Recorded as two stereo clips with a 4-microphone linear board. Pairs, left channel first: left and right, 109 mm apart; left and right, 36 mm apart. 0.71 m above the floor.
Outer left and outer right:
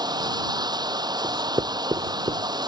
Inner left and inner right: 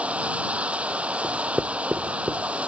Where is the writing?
50° right (ahead or behind).